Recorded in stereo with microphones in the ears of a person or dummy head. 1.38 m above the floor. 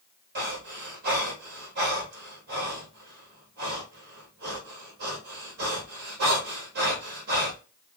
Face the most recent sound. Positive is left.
turn(degrees=-60)  # may be behind; listen again after turning